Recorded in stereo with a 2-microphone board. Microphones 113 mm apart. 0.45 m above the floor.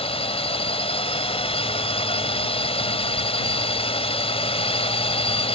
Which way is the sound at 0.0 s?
60° left (ahead or behind).